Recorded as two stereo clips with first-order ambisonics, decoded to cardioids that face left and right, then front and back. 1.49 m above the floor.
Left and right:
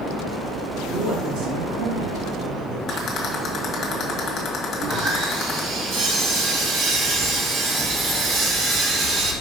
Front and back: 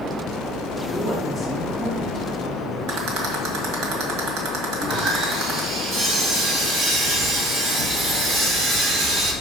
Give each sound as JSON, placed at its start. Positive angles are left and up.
{"t": 0.9, "sound": "a man speaking", "azimuth_deg": -85, "distance_m": 2.5}
{"t": 2.9, "sound": "a rattle", "azimuth_deg": 150, "distance_m": 1.7}
{"t": 4.8, "sound": "sawing", "azimuth_deg": -125, "distance_m": 1.9}